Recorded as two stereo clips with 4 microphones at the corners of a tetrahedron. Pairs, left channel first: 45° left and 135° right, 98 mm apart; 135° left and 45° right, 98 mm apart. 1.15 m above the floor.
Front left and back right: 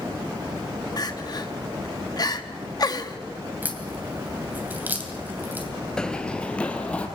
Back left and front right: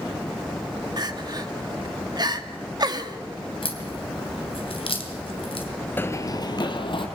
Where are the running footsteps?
110° left, 1.2 m; by 7.1 s 120° left, 2.5 m.